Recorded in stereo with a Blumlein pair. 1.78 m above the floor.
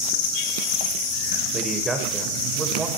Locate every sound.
1.5 s a man speaking: 10° right, 6 m